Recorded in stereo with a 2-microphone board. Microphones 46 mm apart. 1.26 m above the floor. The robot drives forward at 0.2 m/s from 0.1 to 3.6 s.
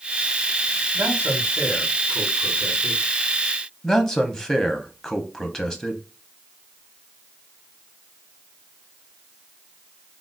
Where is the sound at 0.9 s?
55° right (ahead or behind), 1.6 m; by 3.0 s 45° right (ahead or behind), 1.8 m.